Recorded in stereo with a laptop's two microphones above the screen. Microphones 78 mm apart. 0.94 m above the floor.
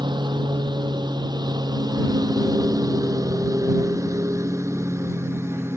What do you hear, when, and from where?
0.0 s a lawn mower: 80° right; by 5.8 s 35° right (ahead or behind)